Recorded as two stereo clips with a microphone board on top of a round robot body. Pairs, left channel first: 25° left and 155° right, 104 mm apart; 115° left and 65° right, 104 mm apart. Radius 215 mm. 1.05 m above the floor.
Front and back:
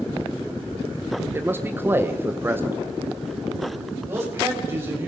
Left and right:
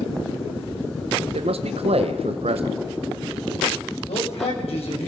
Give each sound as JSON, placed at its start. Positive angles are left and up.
{"t": 1.3, "sound": "a man speaking", "azimuth_deg": -90, "distance_m": 0.9}
{"t": 4.1, "sound": "a man speaking", "azimuth_deg": 135, "distance_m": 5.5}